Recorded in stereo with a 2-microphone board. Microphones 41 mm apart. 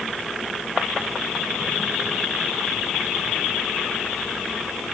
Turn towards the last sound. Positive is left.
No sound to turn to.